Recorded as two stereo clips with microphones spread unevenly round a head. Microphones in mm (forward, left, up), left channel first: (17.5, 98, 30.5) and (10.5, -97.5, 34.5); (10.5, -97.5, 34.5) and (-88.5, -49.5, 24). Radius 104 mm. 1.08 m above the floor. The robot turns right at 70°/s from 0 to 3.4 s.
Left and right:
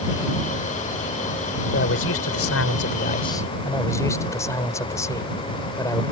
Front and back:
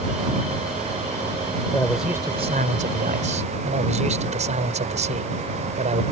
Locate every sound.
1.7 s a man speaking: 45° left; by 6.0 s 165° left